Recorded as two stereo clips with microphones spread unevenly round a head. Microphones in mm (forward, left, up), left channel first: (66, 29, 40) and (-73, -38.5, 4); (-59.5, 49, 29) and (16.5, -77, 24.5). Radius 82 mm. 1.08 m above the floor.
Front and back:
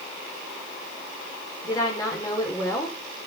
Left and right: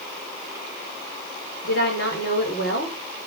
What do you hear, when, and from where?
1.6 s a woman speaking: 95° left, 4.5 m